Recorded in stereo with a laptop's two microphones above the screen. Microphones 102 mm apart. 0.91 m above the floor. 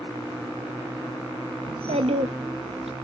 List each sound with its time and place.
1.6 s a child speaking: 65° right (ahead or behind), 0.5 m; by 3.0 s 70° right (ahead or behind), 1.0 m